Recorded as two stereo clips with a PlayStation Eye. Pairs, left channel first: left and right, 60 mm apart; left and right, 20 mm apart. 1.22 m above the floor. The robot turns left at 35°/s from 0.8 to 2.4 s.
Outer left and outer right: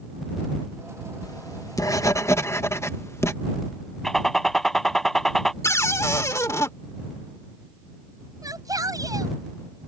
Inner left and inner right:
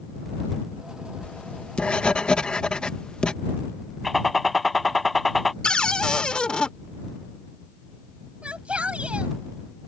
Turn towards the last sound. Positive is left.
turn(degrees=-85)